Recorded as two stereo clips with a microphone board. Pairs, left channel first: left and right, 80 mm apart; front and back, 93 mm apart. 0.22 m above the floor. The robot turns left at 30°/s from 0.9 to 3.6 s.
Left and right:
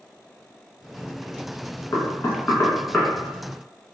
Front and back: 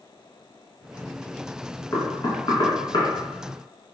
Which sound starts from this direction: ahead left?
Knocking, at 1.9 s.